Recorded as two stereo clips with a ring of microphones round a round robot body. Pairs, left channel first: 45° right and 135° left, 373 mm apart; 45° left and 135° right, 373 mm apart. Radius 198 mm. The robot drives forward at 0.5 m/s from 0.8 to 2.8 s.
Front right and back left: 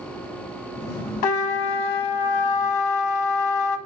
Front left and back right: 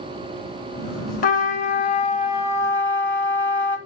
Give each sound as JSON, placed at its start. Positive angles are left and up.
{"t": 1.2, "sound": "a trumpet", "azimuth_deg": -25, "distance_m": 1.8}